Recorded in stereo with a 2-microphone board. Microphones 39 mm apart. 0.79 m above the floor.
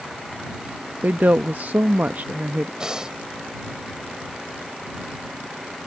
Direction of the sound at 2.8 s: 15° right (ahead or behind).